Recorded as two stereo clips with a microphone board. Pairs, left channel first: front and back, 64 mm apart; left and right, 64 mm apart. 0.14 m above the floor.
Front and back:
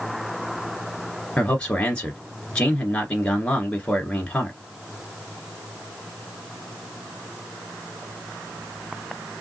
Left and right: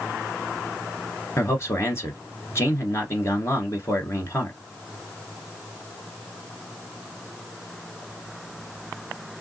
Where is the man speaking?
70° left, 1.5 m.